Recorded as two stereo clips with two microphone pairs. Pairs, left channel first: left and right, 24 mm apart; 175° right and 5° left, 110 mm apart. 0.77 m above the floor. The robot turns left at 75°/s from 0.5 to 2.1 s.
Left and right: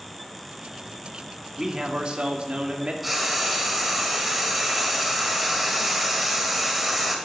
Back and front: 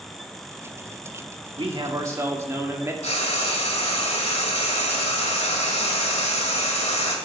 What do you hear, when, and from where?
1.6 s a man speaking: 15° right, 1.6 m; by 2.9 s 55° right, 1.6 m
3.0 s frying: 175° right, 2 m